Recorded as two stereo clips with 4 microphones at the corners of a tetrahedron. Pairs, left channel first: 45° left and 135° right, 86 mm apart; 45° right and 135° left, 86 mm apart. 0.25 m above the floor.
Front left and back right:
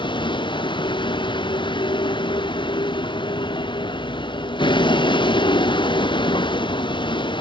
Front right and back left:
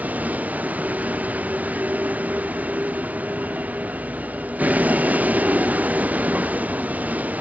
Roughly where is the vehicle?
Ahead left.